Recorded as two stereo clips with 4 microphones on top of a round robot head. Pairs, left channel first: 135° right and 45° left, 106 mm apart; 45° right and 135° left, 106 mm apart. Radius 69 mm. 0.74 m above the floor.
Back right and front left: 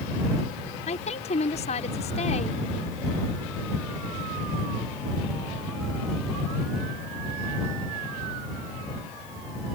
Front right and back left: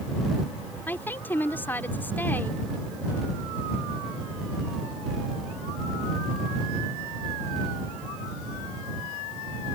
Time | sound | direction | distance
0.9 | a woman speaking | 120° right | ?